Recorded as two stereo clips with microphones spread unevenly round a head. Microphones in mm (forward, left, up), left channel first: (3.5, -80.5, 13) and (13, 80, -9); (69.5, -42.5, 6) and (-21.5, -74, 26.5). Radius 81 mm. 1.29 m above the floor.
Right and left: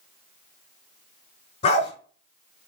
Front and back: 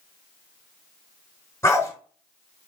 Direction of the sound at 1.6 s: 50° right.